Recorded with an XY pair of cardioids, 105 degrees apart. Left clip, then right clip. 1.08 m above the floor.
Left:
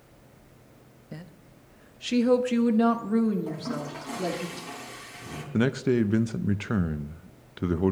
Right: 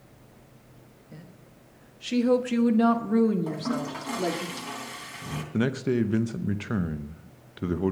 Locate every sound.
1.1 s a woman speaking: 50° left, 1.1 m; by 4.5 s 25° right, 2 m
3.5 s a toilet flushing: 35° right, 3 m
5.5 s a man speaking: 20° left, 0.8 m